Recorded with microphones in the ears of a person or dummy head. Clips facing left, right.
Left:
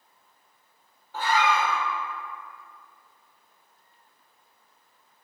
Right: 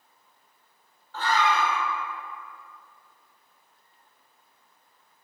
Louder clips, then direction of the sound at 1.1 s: Even; 20° left (ahead or behind).